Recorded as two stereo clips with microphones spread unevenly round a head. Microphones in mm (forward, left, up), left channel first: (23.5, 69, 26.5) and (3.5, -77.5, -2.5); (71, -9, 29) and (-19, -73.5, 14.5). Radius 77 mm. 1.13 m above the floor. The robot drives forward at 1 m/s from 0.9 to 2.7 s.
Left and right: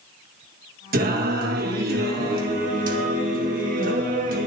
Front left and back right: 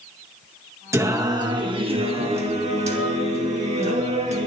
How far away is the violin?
No violin in this recording.